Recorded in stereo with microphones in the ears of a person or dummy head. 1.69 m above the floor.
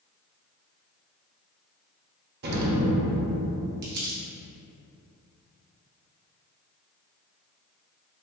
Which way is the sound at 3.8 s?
55° right (ahead or behind).